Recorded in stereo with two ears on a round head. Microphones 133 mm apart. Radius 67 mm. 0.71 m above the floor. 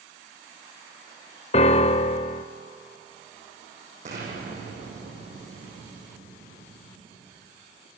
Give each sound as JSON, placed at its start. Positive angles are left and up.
{"t": 1.5, "sound": "a piano", "side_deg": 40, "distance_m": 0.6}
{"t": 4.0, "sound": "an explosion", "side_deg": -45, "distance_m": 8.5}